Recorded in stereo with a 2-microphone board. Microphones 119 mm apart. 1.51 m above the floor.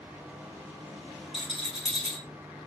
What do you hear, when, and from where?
1.3 s a rattle: 45° left (ahead or behind), 3 m